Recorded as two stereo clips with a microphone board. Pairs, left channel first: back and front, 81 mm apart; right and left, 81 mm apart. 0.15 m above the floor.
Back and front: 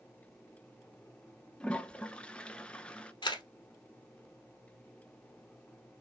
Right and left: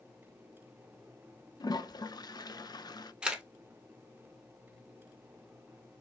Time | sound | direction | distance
1.6 | a toilet flushing | 105° right | 0.5 m
3.2 | a camera shutter | 170° left | 1.0 m